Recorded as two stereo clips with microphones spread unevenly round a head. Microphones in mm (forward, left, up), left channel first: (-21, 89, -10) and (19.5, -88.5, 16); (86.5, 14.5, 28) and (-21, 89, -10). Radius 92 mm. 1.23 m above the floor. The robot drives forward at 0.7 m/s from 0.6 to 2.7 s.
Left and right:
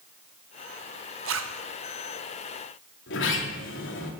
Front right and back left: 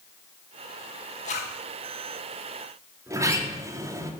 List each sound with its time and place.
1.2 s a zipper: 90° right, 1.1 m; by 1.6 s 100° right, 1.1 m
3.1 s a sliding door: 75° left, 2 m